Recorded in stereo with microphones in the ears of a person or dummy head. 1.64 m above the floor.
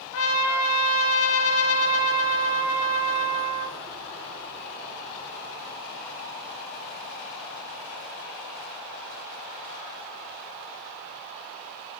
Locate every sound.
0.1 s a trumpet: 75° left (ahead or behind), 2.5 m